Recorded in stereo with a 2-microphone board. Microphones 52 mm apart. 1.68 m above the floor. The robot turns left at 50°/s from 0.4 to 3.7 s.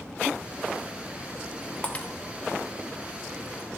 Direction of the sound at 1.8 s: 25° left (ahead or behind).